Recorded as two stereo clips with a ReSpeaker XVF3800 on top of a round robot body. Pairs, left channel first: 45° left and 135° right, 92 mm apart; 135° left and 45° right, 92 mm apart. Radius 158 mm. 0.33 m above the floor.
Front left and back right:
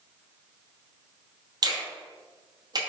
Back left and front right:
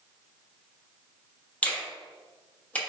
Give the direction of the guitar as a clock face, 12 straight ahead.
I don't hear a guitar.